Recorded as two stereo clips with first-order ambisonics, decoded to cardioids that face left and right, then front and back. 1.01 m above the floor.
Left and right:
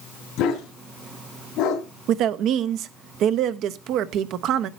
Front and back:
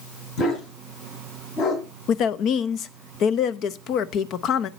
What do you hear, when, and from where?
0.4 s a dog barking: 45° left, 3 m
2.1 s a woman speaking: 50° right, 0.6 m